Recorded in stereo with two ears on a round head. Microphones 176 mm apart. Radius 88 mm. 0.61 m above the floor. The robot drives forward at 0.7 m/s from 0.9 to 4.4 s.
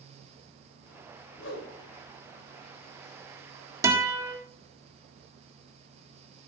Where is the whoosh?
65° left (ahead or behind), 3 m.